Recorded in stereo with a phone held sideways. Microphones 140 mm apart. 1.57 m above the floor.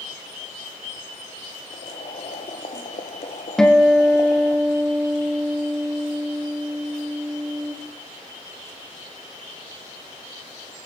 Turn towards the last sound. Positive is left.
turn(degrees=5)  # may be behind; listen again after turning